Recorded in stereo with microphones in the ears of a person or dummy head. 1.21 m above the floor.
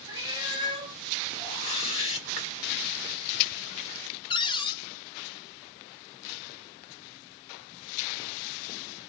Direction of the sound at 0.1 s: 25° right (ahead or behind).